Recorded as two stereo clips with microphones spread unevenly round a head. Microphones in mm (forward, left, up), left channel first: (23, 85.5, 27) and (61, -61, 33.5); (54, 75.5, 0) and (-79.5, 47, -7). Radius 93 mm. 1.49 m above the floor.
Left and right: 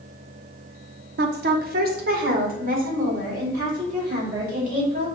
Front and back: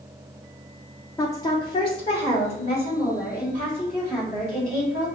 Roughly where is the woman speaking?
Ahead right.